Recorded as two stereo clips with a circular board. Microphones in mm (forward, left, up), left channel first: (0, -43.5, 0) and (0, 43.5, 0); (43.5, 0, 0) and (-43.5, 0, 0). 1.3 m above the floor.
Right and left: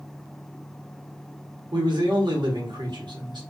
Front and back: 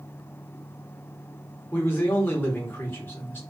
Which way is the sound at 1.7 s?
65° left.